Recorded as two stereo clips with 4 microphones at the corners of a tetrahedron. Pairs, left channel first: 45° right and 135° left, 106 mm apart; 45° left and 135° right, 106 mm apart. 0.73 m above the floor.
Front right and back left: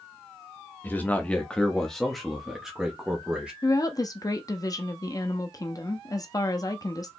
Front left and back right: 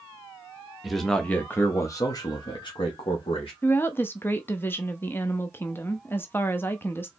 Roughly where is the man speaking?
Ahead right.